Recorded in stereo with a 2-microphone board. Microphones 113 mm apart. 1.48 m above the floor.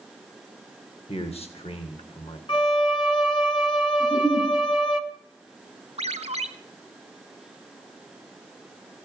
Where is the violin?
45° left (ahead or behind), 1.3 m.